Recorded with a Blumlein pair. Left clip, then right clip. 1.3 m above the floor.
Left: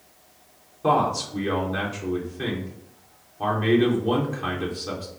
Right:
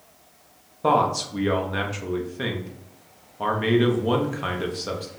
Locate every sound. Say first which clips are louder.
0.8 s a man speaking: right 1 dB; 20° right, 1.2 m